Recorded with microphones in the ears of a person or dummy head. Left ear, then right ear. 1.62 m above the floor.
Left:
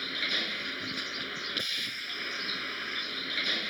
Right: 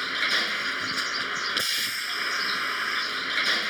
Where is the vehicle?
45° right (ahead or behind).